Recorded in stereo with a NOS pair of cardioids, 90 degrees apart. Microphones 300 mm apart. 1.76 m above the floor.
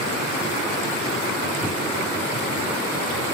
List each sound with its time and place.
1.6 s a microwave: 5° right, 1.1 m